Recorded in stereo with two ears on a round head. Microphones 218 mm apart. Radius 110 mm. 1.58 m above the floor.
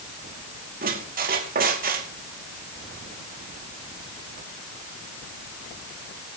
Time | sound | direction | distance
0.8 | a squeak | 40° right (ahead or behind) | 2.5 m